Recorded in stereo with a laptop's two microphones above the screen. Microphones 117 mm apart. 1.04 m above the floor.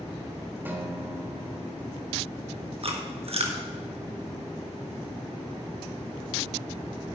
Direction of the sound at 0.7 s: 15° right (ahead or behind).